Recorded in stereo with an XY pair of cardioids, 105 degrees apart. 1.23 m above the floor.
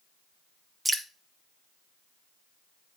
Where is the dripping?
15° right, 1.6 m.